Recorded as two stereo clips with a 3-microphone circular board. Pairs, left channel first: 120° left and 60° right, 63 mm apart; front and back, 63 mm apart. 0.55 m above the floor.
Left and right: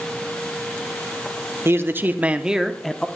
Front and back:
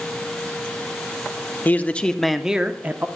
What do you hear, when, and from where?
1.6 s a man speaking: 45° right, 0.9 m; by 3.1 s 170° right, 0.8 m